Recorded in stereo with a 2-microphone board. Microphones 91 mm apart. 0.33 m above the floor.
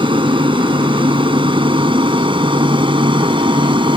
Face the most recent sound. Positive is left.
turn(degrees=-65)  # may be behind; listen again after turning